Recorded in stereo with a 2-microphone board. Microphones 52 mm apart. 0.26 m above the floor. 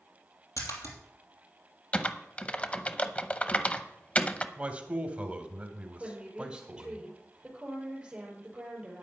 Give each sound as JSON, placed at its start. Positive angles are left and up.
{"t": 0.6, "sound": "a splash", "side_deg": 85, "distance_m": 3.0}
{"t": 1.9, "sound": "typing on a keyboard", "side_deg": 25, "distance_m": 0.7}
{"t": 4.6, "sound": "a man speaking", "side_deg": -25, "distance_m": 1.5}
{"t": 6.0, "sound": "a woman speaking", "side_deg": -15, "distance_m": 5.0}